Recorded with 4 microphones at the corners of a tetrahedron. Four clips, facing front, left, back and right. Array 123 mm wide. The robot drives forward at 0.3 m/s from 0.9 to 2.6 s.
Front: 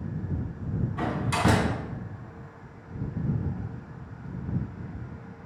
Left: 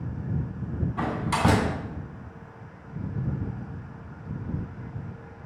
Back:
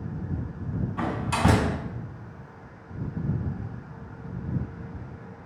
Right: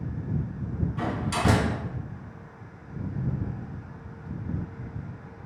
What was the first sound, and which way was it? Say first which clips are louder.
A door slam: left 3 dB, back 1 dB; 120° left.